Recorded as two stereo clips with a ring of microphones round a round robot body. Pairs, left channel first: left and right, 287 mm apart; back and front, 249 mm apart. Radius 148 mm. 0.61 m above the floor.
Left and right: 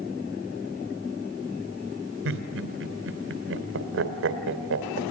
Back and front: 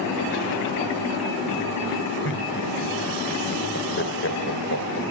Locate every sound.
2.2 s laughter: 135° right, 3 m